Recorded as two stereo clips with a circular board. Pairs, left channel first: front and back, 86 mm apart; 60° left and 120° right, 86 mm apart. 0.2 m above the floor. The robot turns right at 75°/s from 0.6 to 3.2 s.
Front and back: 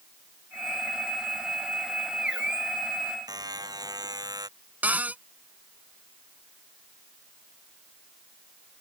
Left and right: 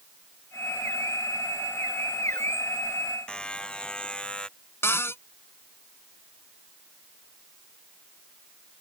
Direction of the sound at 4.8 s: 115° left.